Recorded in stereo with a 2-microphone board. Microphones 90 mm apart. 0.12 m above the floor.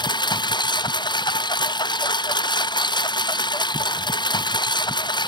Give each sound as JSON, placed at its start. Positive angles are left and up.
{"t": 0.0, "sound": "a lawn mower", "side_deg": 55}